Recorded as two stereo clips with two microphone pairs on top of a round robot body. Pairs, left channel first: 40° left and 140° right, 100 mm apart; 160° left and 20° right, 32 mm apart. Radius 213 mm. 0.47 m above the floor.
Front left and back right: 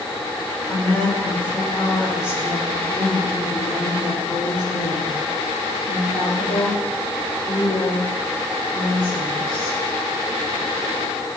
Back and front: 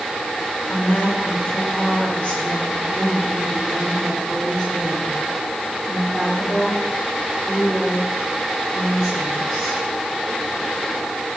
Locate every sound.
0.7 s a woman speaking: 120° left, 5 m; by 9.8 s 70° left, 10.5 m